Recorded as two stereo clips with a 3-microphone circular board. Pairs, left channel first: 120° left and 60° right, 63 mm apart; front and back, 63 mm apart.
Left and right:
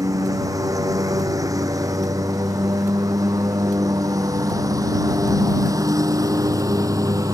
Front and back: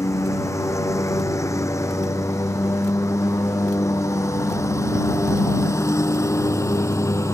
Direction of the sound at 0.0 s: 35° right.